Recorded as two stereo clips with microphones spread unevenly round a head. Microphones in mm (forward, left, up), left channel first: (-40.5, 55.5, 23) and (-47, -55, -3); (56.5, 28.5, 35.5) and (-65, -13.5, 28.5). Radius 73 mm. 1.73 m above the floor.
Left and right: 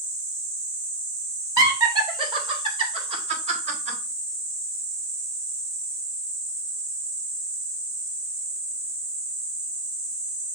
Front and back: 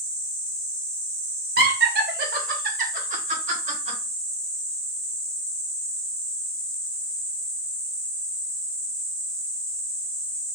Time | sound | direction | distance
1.6 | laughter | 155° right | 2.0 m